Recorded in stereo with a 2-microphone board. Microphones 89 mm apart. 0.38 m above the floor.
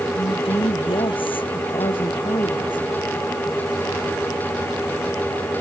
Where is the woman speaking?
80° left; by 2.9 s 65° left (ahead or behind).